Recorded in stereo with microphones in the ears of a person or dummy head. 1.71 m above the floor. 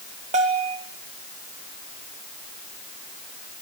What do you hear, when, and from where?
0.3 s a bell: 35° right (ahead or behind), 2.5 m